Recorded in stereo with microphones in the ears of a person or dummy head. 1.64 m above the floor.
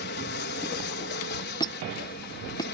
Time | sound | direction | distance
0.0 | an aircraft | 55° left (ahead or behind) | ?
1.6 | a squeak | 25° left (ahead or behind) | ?